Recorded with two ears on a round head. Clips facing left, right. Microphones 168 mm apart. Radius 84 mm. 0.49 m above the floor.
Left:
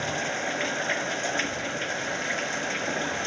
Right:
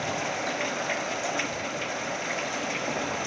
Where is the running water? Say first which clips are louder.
Even; 5° left (ahead or behind).